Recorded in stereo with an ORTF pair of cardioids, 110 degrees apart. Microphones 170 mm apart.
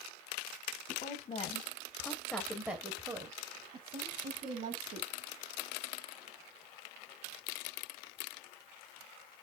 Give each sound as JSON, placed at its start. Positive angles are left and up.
{"t": 0.9, "sound": "a woman speaking", "azimuth_deg": 50, "distance_m": 1.6}